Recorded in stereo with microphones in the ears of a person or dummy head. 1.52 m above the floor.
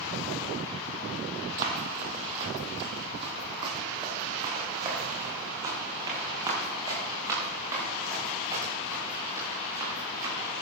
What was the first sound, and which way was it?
Running footsteps, 40° right (ahead or behind).